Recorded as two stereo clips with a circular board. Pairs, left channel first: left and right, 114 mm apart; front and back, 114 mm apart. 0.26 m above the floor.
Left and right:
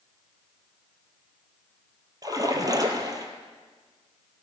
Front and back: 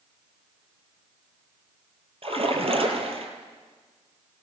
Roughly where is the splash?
Behind right.